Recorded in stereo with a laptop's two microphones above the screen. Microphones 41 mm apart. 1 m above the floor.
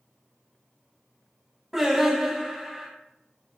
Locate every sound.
1.7 s singing: 5° right (ahead or behind), 1.3 m